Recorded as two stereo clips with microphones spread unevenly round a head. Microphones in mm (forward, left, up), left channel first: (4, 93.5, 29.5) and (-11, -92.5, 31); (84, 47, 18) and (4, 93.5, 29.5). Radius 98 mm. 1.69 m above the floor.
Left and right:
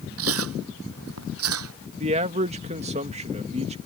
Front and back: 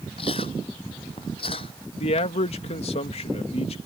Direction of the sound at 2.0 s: 40° right.